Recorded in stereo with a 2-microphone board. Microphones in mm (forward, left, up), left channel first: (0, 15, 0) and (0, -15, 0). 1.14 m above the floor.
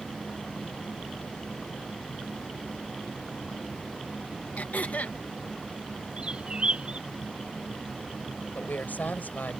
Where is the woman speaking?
80° left.